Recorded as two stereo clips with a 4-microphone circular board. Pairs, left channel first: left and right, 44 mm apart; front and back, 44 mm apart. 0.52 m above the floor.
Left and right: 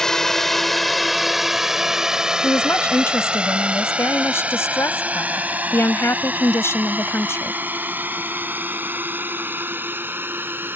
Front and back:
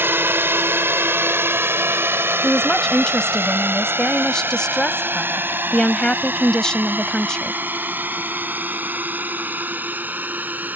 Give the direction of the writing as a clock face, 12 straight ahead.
No writing in this recording.